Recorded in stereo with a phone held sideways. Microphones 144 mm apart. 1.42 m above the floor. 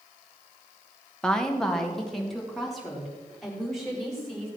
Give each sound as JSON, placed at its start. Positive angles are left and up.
{"t": 1.2, "sound": "a woman speaking", "side_deg": 5, "distance_m": 1.4}